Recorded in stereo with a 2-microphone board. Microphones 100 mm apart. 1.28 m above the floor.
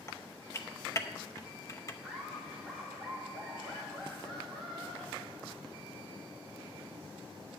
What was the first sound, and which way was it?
Typing on a keyboard, 30° left (ahead or behind).